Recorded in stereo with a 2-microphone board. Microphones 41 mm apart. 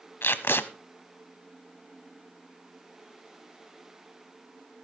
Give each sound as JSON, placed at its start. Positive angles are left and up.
{"t": 0.2, "sound": "tape being pulled", "side_deg": 65, "distance_m": 0.8}